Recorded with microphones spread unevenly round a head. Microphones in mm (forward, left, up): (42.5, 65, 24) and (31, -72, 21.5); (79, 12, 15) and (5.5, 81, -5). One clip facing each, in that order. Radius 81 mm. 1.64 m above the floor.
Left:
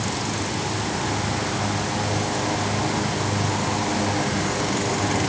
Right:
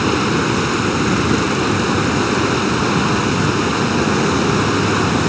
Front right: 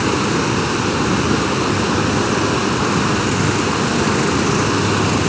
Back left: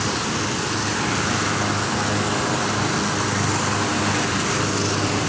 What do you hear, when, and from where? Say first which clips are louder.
0.0 s running water: right 11 dB, front right 7 dB; 95° right